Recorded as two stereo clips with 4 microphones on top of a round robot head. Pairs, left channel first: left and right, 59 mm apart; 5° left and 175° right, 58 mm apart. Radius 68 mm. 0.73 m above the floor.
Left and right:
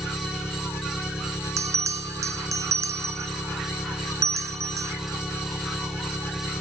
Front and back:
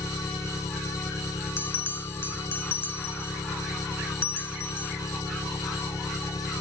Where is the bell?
55° right.